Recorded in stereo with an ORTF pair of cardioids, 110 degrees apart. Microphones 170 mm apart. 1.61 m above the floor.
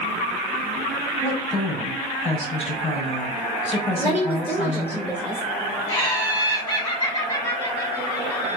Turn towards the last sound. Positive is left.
turn(degrees=30)